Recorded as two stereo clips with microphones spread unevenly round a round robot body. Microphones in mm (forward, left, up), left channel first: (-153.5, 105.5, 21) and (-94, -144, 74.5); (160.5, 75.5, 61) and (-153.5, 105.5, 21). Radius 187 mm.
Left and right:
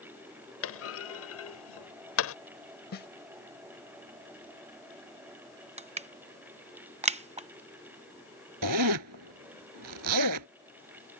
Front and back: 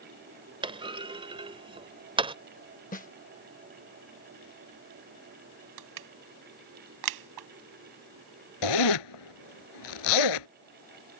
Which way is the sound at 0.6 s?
105° left.